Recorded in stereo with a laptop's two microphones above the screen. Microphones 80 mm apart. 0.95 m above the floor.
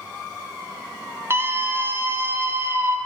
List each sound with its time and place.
1.3 s a scream: 30° right (ahead or behind), 0.6 m